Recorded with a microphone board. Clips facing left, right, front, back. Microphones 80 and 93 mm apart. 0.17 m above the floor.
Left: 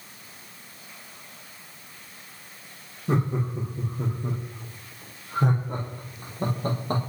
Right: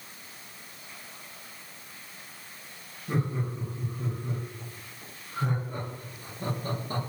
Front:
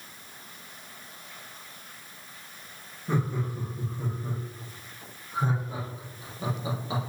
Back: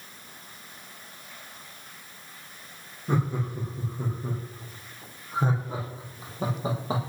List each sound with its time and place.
3.1 s laughter: 105° left, 7 m; by 7.0 s 130° left, 5.5 m